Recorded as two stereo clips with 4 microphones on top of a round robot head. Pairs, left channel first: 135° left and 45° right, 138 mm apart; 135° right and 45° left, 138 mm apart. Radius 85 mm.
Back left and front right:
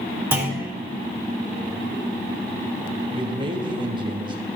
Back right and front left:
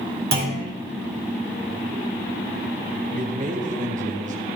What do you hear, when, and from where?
0.3 s a clunk: 35° left, 3.5 m
3.1 s a man speaking: 15° left, 2 m